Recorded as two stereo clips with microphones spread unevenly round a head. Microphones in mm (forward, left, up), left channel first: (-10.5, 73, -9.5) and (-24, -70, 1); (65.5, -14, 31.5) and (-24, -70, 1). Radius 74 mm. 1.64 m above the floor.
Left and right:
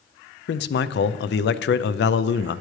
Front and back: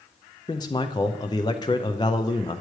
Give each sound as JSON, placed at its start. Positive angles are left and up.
{"t": 0.5, "sound": "a man speaking", "azimuth_deg": 95, "distance_m": 0.6}